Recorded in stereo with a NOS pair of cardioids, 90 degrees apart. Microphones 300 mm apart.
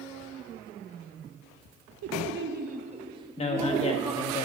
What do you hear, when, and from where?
2.0 s laughter: 55° right, 0.7 m; by 4.4 s straight ahead, 1.9 m
3.4 s a man speaking: 20° left, 1.5 m